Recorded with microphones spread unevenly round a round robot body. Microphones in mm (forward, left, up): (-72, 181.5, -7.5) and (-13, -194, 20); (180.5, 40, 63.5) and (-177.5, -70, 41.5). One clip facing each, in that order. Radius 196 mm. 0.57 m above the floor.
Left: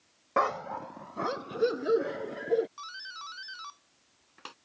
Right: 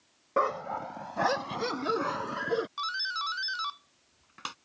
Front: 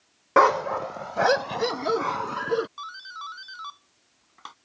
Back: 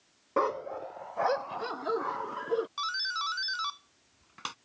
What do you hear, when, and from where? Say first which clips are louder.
0.4 s a dog barking: right 1 dB, front 9 dB; 20° left; by 2.7 s 25° right
2.8 s a doorbell: right 9 dB, back 3 dB; 130° right